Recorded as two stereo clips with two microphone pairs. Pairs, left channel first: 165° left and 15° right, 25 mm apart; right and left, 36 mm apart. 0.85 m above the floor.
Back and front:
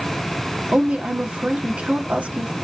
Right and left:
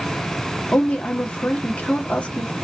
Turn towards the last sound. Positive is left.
turn(degrees=-35)